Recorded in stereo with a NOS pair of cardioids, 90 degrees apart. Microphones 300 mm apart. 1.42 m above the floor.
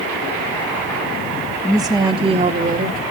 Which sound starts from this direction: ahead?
A woman speaking, at 1.6 s.